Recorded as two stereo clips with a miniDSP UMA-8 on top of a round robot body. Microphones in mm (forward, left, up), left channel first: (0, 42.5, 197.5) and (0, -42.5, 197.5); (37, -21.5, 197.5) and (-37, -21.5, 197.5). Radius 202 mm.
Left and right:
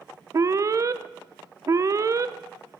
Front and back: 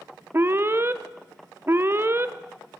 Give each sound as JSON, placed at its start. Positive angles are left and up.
{"t": 0.3, "sound": "an alarm", "azimuth_deg": -130, "distance_m": 0.7}